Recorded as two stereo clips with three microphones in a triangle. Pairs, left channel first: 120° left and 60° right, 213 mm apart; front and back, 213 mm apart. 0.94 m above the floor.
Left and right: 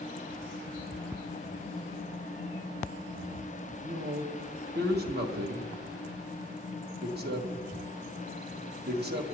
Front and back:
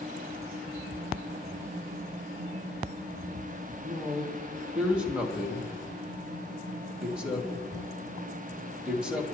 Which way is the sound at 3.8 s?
95° right.